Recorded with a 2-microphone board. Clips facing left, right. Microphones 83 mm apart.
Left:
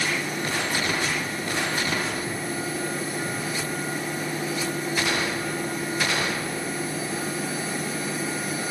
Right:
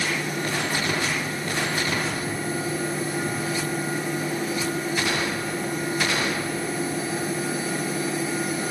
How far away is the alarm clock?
I don't hear an alarm clock.